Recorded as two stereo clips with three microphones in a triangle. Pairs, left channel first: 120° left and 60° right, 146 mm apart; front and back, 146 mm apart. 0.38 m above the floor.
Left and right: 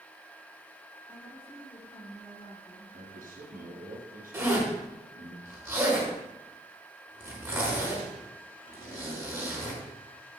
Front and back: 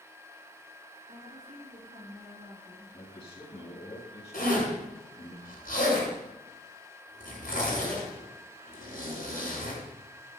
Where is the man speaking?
50° right, 4 m.